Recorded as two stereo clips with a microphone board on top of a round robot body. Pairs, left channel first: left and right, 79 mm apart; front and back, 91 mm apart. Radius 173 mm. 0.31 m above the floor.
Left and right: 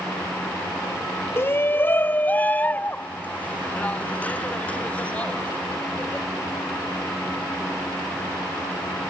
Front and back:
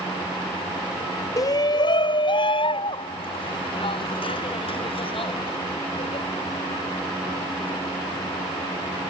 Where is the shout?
40° left; by 6.2 s 15° left.